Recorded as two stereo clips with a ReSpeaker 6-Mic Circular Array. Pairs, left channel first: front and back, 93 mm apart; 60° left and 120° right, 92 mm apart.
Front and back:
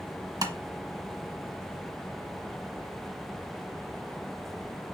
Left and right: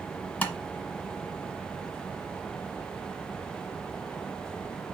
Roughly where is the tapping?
Behind left.